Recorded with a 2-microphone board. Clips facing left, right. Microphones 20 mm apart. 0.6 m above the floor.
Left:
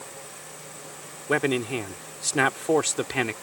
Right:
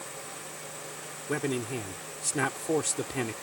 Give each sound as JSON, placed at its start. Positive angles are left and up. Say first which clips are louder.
{"t": 1.3, "sound": "a man speaking", "louder": "left 7 dB", "side_deg": 40}